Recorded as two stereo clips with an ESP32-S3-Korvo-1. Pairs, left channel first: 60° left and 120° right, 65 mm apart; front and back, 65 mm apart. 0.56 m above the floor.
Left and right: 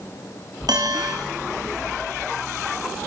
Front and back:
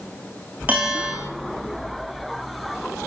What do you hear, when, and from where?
0.7 s a bell: 115° right, 6 m